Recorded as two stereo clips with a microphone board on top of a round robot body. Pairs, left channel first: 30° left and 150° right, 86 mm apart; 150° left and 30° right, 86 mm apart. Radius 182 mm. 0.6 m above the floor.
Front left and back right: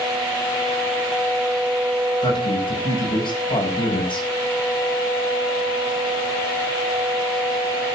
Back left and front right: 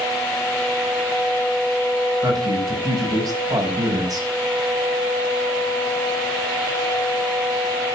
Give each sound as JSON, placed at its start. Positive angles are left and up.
{"t": 2.2, "sound": "a man speaking", "azimuth_deg": 15, "distance_m": 7.5}